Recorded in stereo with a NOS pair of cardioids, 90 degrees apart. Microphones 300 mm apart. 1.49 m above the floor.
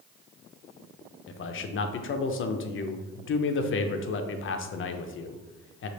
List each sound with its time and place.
1.3 s a man speaking: 45° left, 0.6 m